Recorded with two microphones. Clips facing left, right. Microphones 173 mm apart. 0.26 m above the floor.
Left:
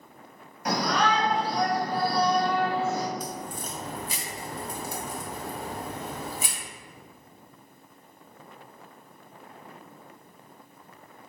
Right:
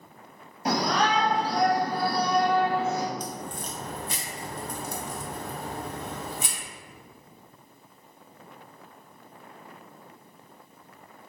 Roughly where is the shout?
Right.